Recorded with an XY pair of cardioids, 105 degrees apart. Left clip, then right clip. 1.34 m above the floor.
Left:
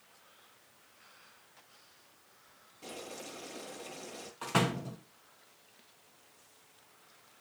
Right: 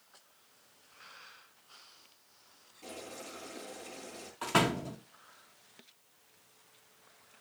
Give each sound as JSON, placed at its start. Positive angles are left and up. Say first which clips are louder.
{"t": 2.8, "sound": "boiling", "louder": "left 1 dB", "azimuth_deg": 15, "distance_m": 9.0}
{"t": 4.4, "sound": "a door slam", "louder": "right 3 dB", "azimuth_deg": -15, "distance_m": 1.5}